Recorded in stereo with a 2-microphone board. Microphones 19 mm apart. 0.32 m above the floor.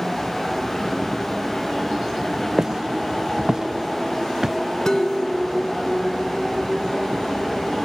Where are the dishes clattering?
35° left (ahead or behind).